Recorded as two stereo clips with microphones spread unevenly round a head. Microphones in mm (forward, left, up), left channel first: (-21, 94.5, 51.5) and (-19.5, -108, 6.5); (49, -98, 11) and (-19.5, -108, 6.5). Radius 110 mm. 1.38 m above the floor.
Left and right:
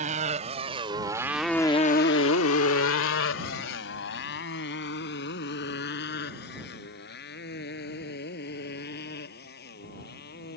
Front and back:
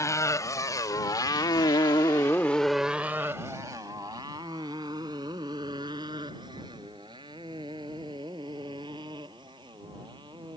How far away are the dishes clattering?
I don't hear dishes clattering.